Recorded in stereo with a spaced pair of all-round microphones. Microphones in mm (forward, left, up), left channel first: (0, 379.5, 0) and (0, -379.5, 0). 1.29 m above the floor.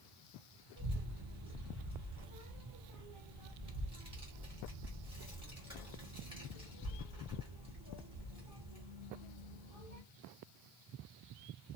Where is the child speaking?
20° right (ahead or behind), 1.0 m.